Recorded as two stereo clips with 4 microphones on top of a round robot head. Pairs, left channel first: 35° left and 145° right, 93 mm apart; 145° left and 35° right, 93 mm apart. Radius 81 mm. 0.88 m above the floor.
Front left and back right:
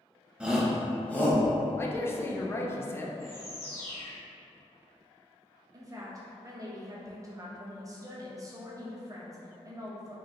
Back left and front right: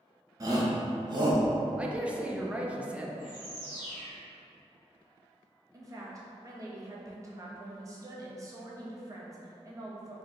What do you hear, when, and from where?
0.4 s a shout: 70° right, 0.9 m; by 1.4 s 20° right, 1.1 m
1.8 s a man speaking: 25° left, 0.5 m
3.2 s a bird: 10° left, 1.7 m
5.7 s a woman speaking: 90° right, 0.8 m